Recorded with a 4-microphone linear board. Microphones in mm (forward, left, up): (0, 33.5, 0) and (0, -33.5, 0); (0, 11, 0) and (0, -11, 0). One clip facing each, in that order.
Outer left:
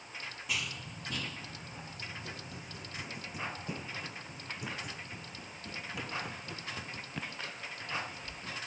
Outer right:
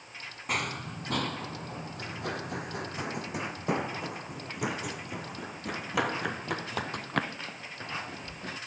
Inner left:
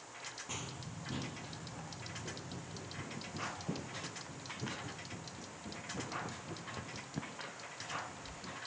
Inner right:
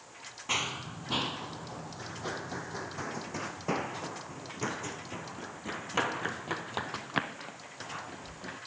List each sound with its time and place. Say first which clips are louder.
0.5 s running footsteps: outer right 8 dB, inner right 18 dB; 50° right (ahead or behind); by 8.6 s 70° right (ahead or behind)